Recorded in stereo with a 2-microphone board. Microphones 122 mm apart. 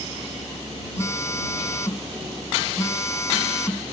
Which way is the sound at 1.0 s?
25° left (ahead or behind).